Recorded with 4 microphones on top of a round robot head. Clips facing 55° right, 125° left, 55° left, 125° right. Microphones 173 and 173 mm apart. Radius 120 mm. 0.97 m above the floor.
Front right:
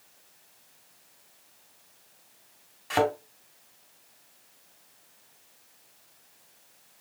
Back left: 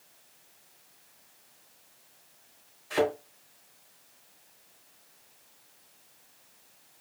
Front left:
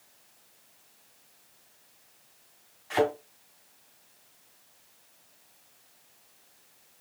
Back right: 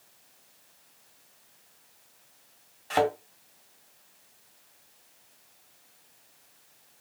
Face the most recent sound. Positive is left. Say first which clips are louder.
# front right 1 dB, even
turn(degrees=-70)